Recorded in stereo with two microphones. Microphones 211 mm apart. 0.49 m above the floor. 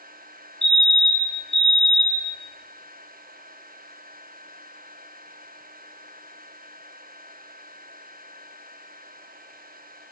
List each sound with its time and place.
0.6 s a fire alarm: 55° right (ahead or behind), 5 m